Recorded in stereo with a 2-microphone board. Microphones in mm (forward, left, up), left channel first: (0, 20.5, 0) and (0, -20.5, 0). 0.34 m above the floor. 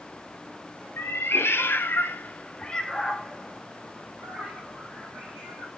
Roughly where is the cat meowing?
Left.